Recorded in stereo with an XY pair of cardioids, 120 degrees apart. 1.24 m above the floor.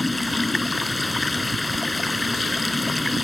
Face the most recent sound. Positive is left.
turn(degrees=10)